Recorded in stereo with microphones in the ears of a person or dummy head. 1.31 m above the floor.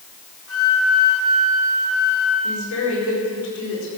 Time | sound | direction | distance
0.5 | a flute | 75° left (ahead or behind) | 3.5 m
2.4 | a woman speaking | 80° left | 4.5 m